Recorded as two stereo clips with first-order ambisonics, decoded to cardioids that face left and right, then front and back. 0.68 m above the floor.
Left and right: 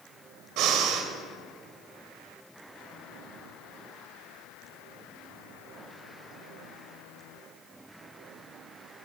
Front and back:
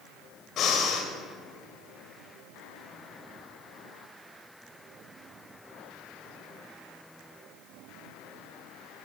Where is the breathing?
55° right, 2 m.